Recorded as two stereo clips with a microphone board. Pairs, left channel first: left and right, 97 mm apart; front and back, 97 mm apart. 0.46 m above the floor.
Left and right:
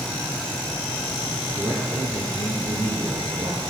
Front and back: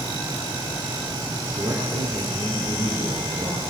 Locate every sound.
1.6 s a man speaking: 140° right, 8 m